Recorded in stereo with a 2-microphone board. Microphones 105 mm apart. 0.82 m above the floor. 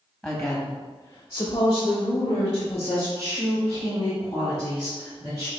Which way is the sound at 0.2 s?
Centre (ahead or behind).